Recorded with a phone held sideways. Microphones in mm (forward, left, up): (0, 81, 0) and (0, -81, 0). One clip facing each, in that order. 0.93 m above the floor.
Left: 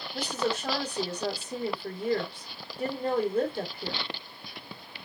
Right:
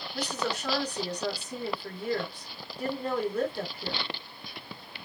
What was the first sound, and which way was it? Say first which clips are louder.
A woman speaking: left 2 dB; 25° left (ahead or behind).